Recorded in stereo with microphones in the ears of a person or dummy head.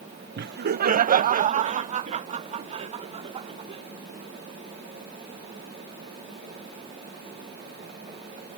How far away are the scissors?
I don't hear scissors.